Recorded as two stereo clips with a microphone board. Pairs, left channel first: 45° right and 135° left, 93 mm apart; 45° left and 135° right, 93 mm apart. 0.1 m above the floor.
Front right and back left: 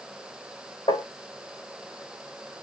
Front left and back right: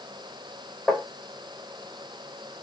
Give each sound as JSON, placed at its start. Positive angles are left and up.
{"t": 0.9, "sound": "tapping", "azimuth_deg": -35, "distance_m": 4.0}